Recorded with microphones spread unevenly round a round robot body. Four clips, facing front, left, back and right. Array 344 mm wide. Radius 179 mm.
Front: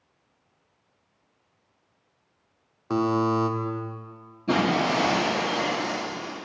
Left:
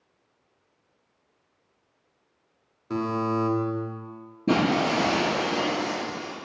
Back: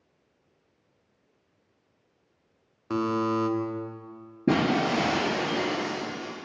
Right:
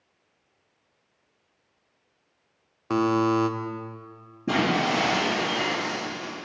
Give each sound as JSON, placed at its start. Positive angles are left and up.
{"t": 2.9, "sound": "a buzzer", "azimuth_deg": -70, "distance_m": 1.3}
{"t": 4.5, "sound": "breaking glass", "azimuth_deg": 170, "distance_m": 4.5}